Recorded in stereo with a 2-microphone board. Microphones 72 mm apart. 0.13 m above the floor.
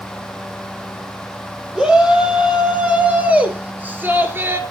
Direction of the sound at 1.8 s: 10° right (ahead or behind).